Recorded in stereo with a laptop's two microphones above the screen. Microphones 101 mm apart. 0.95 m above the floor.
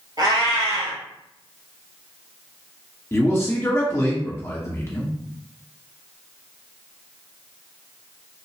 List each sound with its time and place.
0.2 s a cat meowing: 45° right (ahead or behind), 1.4 m
3.1 s a man speaking: 25° left (ahead or behind), 1.0 m